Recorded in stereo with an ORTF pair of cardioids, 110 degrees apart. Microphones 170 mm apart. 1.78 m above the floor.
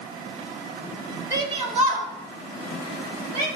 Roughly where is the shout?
Ahead.